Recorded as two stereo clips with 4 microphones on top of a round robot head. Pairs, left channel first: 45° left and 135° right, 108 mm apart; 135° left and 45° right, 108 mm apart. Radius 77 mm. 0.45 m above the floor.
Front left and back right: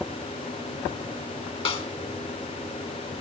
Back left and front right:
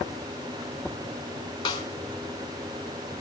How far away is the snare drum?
About 4 m.